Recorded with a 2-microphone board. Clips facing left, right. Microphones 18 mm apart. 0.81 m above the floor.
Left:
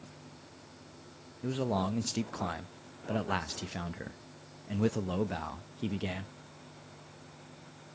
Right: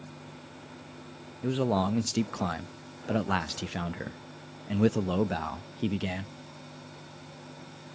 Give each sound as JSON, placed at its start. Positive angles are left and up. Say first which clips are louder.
{"t": 1.4, "sound": "a man speaking", "louder": "right 5 dB", "side_deg": -15, "distance_m": 0.5}